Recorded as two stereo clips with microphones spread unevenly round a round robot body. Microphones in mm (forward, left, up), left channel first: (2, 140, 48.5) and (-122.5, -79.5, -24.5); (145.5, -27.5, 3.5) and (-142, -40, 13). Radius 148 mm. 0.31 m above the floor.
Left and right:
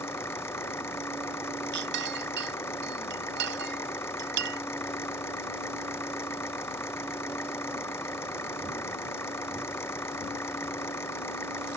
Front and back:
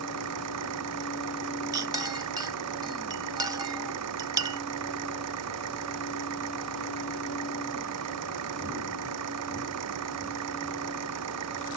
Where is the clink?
100° right.